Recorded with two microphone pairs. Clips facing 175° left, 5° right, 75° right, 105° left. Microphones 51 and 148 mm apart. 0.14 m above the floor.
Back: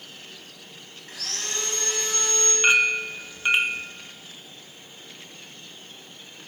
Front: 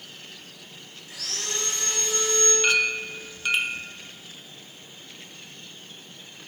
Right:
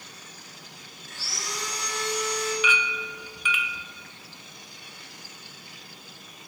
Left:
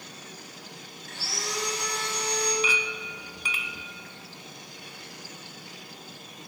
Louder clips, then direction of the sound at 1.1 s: Even, left 3 dB; 130° left.